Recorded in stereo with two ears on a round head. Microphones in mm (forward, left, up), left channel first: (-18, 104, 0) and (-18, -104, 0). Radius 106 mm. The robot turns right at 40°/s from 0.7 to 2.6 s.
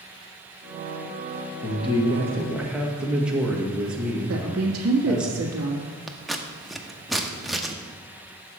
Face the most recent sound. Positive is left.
turn(degrees=0)  # may be behind; listen again after turning